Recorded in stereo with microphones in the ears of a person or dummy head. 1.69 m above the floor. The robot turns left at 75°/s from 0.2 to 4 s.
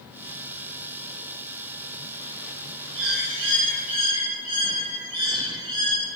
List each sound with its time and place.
3.0 s a bird: 70° right, 8.5 m; by 6.0 s 150° right, 8.5 m